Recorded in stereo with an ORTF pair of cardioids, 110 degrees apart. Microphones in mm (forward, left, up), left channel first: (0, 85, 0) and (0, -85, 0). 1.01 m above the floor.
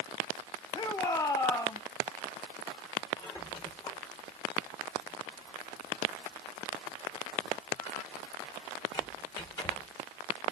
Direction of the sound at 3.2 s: 25° left.